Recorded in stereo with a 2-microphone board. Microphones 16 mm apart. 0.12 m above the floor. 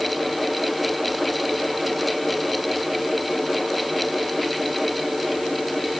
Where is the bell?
No bell in this recording.